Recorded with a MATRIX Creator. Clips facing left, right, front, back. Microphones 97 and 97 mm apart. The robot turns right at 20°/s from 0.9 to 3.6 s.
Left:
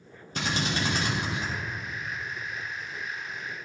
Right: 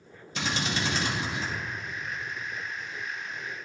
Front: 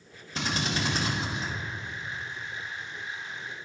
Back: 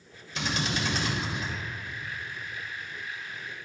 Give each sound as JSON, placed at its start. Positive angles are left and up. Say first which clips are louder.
{"t": 0.3, "sound": "a drill", "louder": "left 1 dB, even", "azimuth_deg": 50, "distance_m": 2.0}